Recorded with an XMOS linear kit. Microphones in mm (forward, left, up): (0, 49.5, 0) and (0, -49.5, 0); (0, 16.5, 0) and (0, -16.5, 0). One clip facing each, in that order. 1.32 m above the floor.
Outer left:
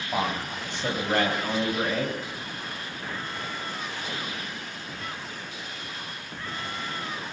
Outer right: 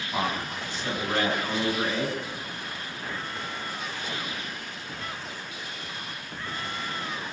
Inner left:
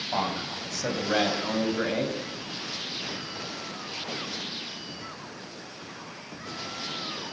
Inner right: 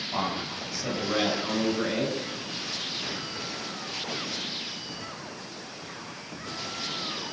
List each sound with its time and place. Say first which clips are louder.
0.1 s a man speaking: outer left 1 dB, inner left 1 dB; 70° left (ahead or behind), 8 m